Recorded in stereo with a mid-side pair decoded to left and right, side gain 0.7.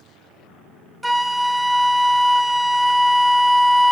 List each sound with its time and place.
1.0 s a flute: 5° right, 0.8 m